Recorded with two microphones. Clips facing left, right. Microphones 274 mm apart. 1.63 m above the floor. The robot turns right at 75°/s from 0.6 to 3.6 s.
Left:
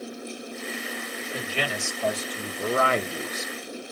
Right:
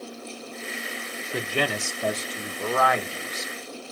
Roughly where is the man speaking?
Right.